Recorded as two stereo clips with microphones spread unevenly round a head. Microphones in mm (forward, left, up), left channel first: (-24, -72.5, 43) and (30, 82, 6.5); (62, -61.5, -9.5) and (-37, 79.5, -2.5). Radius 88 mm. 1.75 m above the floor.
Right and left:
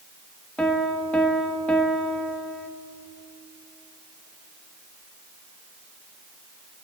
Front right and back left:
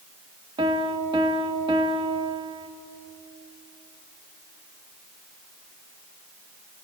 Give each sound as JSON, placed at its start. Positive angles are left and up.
{"t": 0.6, "sound": "a piano", "azimuth_deg": 180, "distance_m": 1.5}